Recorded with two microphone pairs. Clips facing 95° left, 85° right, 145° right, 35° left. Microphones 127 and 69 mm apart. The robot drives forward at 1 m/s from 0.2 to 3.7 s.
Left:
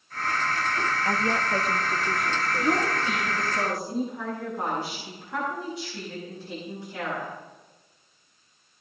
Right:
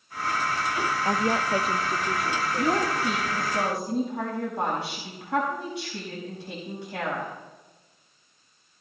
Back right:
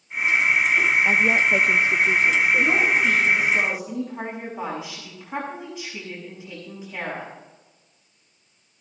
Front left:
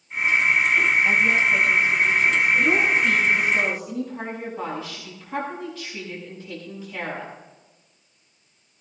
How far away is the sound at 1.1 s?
About 0.5 m.